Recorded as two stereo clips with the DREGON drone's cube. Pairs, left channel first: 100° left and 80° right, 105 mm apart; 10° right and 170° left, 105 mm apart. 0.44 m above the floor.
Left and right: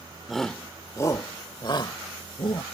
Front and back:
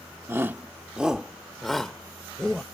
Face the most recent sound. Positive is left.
turn(degrees=70)